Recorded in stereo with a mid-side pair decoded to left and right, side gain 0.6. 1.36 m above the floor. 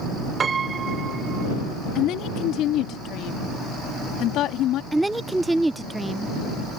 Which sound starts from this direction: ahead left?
A woman speaking, at 1.9 s.